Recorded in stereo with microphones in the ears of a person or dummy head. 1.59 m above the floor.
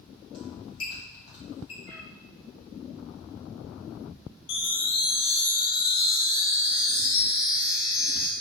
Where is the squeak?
45° left (ahead or behind), 2.0 m.